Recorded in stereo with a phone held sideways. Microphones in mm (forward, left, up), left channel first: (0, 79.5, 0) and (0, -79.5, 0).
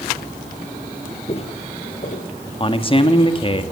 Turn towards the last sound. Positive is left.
turn(degrees=30)  # may be behind; listen again after turning